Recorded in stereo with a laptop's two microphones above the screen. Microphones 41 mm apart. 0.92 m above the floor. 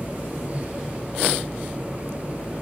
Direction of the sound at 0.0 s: 35° right (ahead or behind).